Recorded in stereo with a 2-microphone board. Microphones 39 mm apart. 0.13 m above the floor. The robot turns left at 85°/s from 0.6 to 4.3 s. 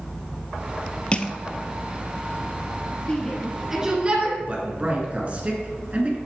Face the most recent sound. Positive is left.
turn(degrees=-35)  # may be behind; listen again after turning